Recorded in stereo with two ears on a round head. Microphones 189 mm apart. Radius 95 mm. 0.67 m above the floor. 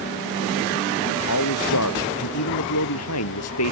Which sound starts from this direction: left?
A man speaking, at 1.3 s.